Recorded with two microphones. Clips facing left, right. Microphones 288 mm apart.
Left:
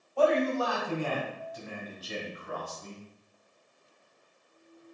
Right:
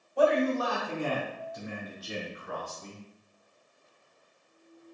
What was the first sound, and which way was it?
A man speaking, 15° right (ahead or behind).